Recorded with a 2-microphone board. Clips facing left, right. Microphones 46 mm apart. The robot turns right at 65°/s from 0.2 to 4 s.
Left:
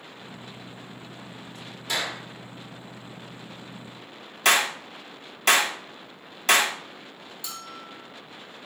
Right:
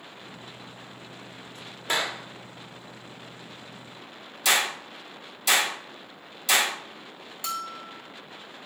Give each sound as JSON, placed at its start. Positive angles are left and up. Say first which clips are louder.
{"t": 1.9, "sound": "a clap", "louder": "right 2 dB", "side_deg": -40, "distance_m": 1.5}
{"t": 4.5, "sound": "a clap", "louder": "left 3 dB", "side_deg": 50, "distance_m": 1.6}
{"t": 7.4, "sound": "a bell", "louder": "right 8 dB", "side_deg": -50, "distance_m": 1.2}